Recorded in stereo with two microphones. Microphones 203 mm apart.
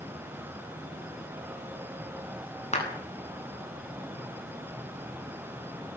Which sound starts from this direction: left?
A clap, at 2.7 s.